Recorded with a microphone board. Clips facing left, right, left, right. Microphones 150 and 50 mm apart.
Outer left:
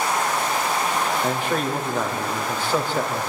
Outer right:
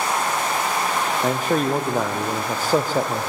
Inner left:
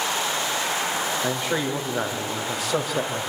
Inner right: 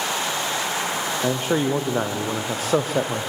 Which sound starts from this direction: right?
A man speaking, at 1.2 s.